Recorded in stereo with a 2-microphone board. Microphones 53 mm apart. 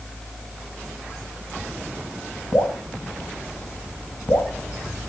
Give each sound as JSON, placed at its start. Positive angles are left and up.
{"t": 2.5, "sound": "dripping", "side_deg": 80, "distance_m": 2.5}